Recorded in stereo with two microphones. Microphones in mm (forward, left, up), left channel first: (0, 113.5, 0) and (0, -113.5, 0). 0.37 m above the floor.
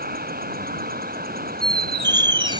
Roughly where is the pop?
No pop in this recording.